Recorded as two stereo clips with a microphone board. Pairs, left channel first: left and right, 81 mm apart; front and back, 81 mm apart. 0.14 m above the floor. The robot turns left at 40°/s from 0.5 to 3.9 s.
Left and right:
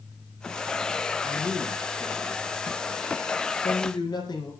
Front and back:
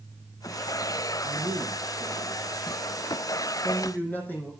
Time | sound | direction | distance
1.2 | a man speaking | 170° left | 5 m